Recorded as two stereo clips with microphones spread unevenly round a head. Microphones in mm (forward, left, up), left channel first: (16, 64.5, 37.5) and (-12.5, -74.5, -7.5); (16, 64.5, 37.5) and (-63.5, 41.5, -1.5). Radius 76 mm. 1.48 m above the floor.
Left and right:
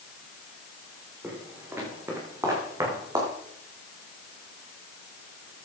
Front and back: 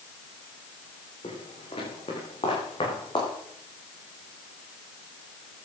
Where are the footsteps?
20° right, 6 m; by 3.3 s 30° right, 4.5 m.